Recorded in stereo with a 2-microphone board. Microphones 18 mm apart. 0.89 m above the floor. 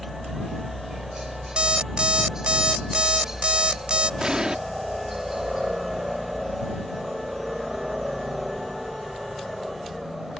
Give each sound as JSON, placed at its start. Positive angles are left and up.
{"t": 0.0, "sound": "a helicopter", "side_deg": -30}
{"t": 1.6, "sound": "an alarm clock", "side_deg": -70}
{"t": 4.2, "sound": "an explosion", "side_deg": -45}